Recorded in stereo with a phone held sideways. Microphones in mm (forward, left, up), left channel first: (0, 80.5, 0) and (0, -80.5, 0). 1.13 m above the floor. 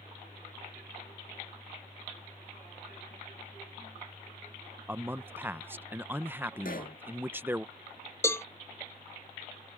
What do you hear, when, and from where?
4.9 s a man speaking: 15° right (ahead or behind)
6.7 s a pop: 65° left (ahead or behind)
8.2 s a cowbell: 15° left (ahead or behind)